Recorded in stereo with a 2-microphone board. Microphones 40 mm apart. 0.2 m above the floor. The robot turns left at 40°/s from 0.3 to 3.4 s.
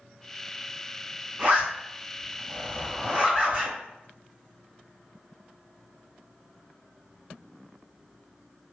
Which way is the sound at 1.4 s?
30° right (ahead or behind).